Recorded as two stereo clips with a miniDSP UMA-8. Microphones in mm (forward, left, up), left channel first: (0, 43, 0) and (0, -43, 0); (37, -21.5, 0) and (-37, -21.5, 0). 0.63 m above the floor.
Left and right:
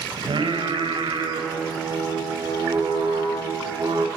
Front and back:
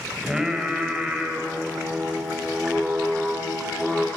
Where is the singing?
100° right, 3.5 m.